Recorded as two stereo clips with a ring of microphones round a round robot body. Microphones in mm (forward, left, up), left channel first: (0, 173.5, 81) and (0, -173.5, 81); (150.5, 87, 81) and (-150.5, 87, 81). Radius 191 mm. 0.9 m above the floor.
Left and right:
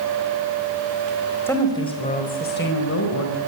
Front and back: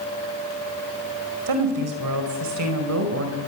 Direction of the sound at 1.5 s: 175° left.